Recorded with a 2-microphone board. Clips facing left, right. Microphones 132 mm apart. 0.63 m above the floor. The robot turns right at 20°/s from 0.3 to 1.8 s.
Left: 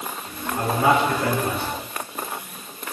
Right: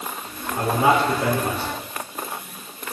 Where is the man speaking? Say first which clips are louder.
Right 1 dB; 15° right (ahead or behind), 1.9 m; by 1.8 s 35° right (ahead or behind), 1.9 m.